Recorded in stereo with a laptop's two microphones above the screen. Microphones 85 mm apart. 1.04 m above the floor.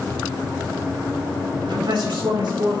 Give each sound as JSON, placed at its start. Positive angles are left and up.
{"t": 1.6, "sound": "a man speaking", "side_deg": -75, "distance_m": 4.0}